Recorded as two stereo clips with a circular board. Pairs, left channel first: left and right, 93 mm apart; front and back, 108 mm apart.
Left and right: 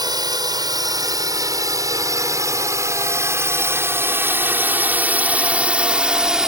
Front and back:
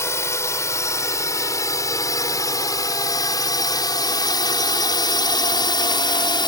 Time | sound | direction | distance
0.0 | a drone | 60° right | ?